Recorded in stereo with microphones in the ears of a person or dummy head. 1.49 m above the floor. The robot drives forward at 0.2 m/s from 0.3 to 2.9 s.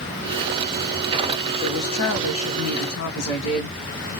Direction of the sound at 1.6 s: 70° left (ahead or behind).